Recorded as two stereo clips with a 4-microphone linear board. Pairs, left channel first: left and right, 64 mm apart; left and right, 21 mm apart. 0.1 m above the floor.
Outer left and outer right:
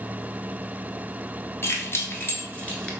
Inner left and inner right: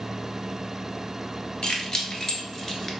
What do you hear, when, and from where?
1.6 s keys jangling: 40° left (ahead or behind), 1.2 m; by 2.9 s 15° left (ahead or behind), 0.9 m